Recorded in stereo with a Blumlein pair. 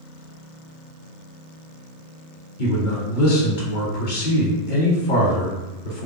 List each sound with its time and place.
2.6 s a man speaking: 45° left, 1.4 m